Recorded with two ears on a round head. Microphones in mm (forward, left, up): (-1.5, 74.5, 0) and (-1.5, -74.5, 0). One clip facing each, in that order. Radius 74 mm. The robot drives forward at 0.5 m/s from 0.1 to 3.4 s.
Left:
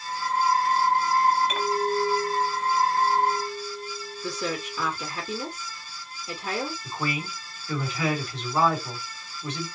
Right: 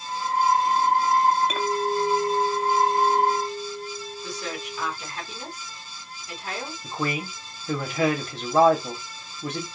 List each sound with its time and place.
1.5 s a clink: 80° right, 2 m; by 4.9 s 70° right (ahead or behind), 2 m
4.2 s a woman speaking: 75° left (ahead or behind), 1.5 m
6.8 s a man speaking: 40° right (ahead or behind), 1.8 m